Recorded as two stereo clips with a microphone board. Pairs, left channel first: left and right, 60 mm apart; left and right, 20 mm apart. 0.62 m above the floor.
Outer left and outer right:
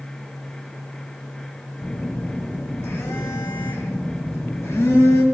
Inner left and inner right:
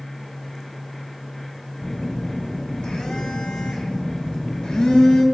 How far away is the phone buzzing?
About 0.9 m.